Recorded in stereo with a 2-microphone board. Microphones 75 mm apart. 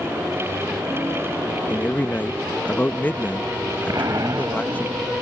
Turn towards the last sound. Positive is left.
turn(degrees=-50)  # may be behind; listen again after turning